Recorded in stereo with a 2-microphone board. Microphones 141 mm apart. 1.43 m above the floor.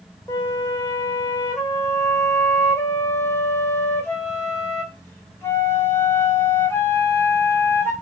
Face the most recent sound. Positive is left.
turn(degrees=15)  # may be behind; listen again after turning